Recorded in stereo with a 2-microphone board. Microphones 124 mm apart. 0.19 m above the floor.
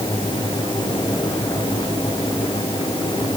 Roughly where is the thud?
I don't hear a thud.